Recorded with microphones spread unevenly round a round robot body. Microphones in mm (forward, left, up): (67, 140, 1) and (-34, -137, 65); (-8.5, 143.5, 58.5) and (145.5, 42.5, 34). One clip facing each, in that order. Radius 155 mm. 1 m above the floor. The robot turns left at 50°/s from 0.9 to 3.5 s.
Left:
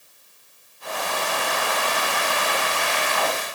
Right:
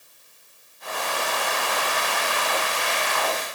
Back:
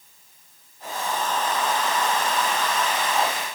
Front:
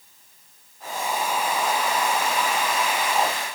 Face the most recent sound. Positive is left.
No sound to turn to.